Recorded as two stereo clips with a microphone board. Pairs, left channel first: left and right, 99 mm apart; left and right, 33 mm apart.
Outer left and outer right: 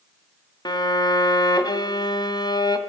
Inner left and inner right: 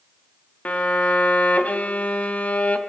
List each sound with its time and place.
0.7 s a violin: 45° left (ahead or behind), 2.5 m